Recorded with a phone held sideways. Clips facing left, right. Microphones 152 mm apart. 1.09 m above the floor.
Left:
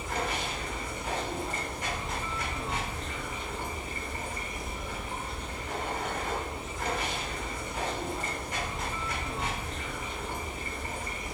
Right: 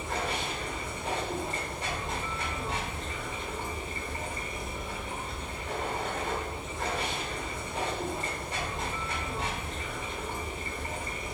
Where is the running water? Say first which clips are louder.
Even; 30° right (ahead or behind), 1.1 m.